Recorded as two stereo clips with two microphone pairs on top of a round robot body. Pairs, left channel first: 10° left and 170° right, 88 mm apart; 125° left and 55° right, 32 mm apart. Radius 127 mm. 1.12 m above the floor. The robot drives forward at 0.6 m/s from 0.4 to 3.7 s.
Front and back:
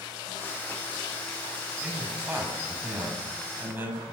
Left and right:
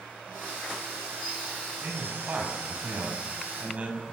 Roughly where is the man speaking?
Right.